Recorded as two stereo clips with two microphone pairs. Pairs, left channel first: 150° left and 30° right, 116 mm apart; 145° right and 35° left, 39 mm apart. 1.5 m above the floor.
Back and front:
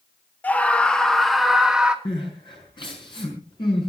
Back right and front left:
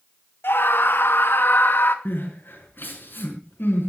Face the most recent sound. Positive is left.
turn(degrees=-165)